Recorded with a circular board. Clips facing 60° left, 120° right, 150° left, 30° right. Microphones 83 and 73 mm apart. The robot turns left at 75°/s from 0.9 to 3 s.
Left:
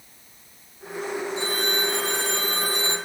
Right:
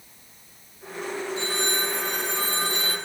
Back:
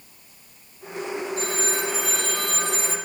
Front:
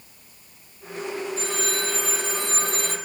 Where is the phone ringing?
115° left, 4.5 m; by 3.0 s 5° right, 4.5 m.